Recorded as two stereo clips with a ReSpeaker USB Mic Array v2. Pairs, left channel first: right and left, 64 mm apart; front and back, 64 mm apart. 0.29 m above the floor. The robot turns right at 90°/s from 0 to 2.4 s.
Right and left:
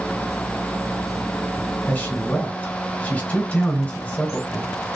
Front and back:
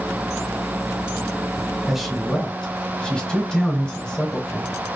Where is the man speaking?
110° right, 1.1 m; by 4.7 s 60° right, 1.1 m.